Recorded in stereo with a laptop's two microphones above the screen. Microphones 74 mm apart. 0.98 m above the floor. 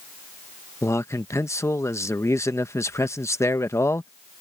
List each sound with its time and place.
0.8 s a man speaking: 40° left (ahead or behind)